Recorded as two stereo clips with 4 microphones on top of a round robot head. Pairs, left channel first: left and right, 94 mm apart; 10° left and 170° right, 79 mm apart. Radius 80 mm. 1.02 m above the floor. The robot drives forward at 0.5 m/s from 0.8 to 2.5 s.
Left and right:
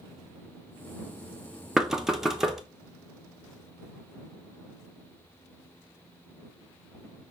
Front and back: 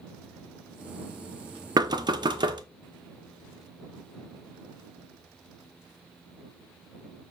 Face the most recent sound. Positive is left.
turn(degrees=-175)